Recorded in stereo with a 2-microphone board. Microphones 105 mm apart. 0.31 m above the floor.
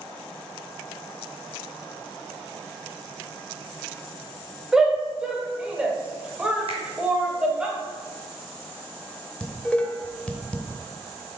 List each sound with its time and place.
4.7 s a shout: 5° right (ahead or behind), 1.2 m; by 7.7 s 10° right (ahead or behind), 1.3 m
6.7 s a finger snap: 65° right (ahead or behind), 2 m
9.4 s dishes clattering: 10° left (ahead or behind), 0.8 m